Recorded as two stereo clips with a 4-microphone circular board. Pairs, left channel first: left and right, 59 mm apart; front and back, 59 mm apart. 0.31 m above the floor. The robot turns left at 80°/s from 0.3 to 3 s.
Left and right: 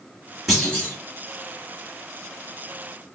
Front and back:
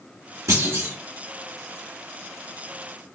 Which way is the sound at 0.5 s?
175° right.